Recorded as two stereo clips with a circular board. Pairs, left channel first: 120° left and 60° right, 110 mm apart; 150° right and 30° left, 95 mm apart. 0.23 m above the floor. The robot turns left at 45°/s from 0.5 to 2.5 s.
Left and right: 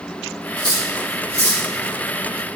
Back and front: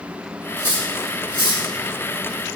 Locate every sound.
0.6 s cutlery clinking: 85° left, 1.9 m; by 1.7 s 35° left, 1.9 m